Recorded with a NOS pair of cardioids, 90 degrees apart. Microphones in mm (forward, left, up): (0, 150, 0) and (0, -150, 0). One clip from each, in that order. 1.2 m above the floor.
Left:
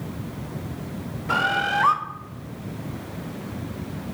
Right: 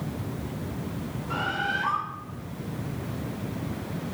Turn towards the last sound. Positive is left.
turn(degrees=65)